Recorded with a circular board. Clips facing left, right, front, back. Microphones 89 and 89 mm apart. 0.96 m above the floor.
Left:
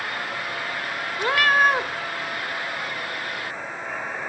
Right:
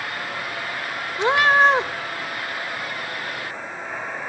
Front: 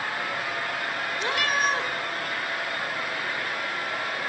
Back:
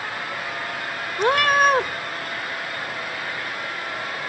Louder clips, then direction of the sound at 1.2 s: Right 3 dB, back 10 dB; 155° right.